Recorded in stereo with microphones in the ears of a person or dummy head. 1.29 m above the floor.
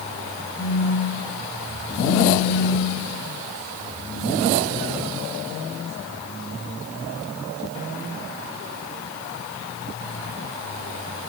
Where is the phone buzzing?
20° left (ahead or behind), 0.7 m.